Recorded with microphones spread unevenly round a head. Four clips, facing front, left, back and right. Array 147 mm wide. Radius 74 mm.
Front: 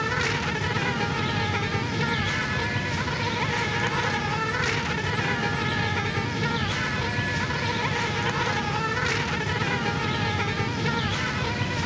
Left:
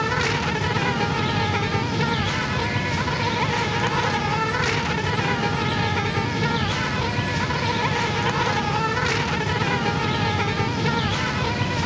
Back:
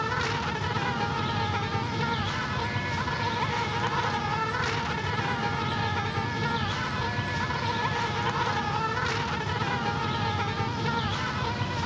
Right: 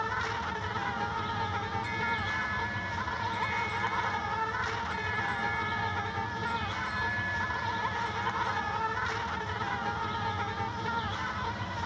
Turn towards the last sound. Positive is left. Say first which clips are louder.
# left 9 dB, front 2 dB
turn(degrees=75)